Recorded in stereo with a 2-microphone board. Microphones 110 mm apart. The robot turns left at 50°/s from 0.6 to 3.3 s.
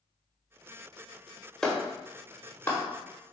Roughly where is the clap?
Centre.